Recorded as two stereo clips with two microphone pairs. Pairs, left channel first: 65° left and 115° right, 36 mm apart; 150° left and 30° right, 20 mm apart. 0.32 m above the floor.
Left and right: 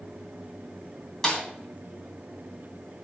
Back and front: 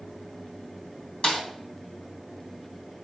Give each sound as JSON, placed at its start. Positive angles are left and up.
{"t": 1.2, "sound": "a snare drum", "azimuth_deg": 140, "distance_m": 2.5}